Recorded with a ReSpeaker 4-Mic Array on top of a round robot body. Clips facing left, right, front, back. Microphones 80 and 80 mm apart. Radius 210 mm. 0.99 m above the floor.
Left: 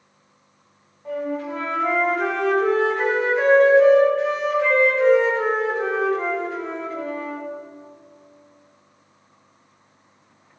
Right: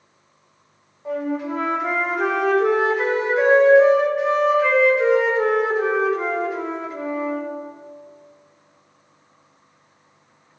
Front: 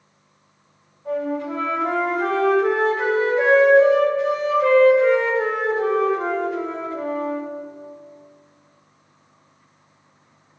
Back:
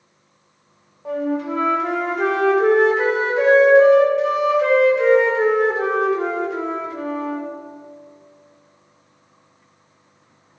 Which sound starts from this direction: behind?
A flute, at 1.1 s.